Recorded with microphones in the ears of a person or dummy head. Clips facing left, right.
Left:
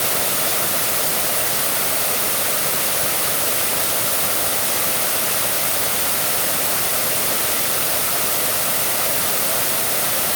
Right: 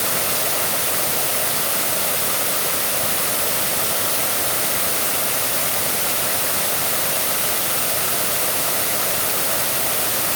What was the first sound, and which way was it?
Only background noise.